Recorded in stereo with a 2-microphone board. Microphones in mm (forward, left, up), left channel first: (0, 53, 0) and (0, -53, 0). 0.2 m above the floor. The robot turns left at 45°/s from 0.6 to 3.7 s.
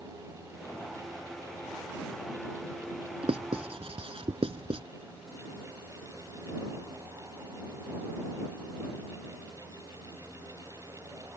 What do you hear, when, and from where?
3.2 s writing: 65° right (ahead or behind)